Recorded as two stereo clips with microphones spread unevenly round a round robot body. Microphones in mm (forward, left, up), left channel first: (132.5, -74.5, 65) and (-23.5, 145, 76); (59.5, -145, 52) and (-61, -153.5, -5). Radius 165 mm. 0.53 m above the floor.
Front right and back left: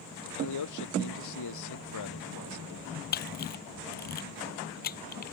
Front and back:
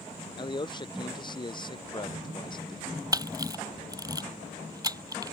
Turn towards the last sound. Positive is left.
turn(degrees=-115)